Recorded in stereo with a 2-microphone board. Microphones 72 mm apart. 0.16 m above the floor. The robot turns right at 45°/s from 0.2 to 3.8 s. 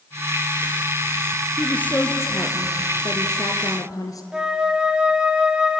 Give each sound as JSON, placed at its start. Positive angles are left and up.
{"t": 1.6, "sound": "a woman speaking", "azimuth_deg": 15, "distance_m": 3.0}
{"t": 4.3, "sound": "a flute", "side_deg": -10, "distance_m": 1.9}